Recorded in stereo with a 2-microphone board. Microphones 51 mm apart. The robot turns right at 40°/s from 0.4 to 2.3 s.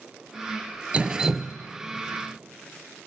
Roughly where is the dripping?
Right.